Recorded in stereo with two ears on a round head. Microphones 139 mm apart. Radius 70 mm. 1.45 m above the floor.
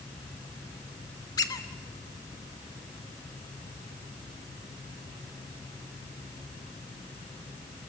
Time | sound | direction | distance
1.4 | a squeak | 25° left (ahead or behind) | 1.2 m